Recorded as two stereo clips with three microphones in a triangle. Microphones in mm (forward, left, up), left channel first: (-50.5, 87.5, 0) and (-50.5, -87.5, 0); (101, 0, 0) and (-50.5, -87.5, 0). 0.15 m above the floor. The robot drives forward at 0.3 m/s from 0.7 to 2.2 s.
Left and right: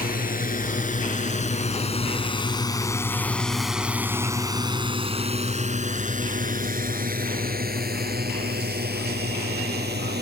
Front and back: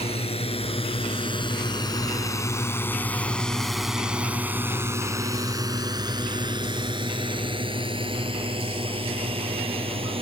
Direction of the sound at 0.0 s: 80° left.